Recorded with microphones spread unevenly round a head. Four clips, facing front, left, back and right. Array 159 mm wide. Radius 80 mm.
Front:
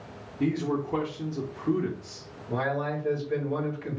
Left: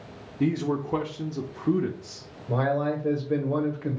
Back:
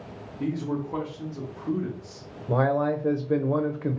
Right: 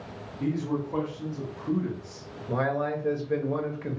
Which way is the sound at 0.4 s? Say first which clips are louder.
Left 3 dB, front 2 dB; 65° left.